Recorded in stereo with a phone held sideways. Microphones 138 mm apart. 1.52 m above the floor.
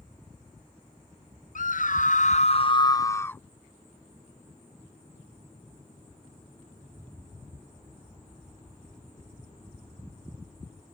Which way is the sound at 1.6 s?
70° left (ahead or behind).